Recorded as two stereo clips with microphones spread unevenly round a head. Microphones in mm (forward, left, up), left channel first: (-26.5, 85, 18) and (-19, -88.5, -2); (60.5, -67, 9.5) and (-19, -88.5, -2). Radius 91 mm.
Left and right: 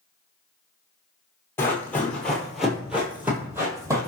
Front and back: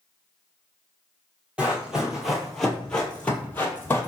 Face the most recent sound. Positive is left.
turn(degrees=-15)